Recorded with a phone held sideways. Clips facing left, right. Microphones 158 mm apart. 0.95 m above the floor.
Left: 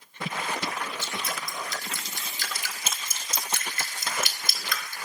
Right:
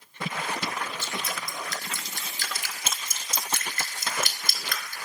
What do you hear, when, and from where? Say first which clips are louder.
1.0 s dripping: even; 50° right (ahead or behind), 1.9 m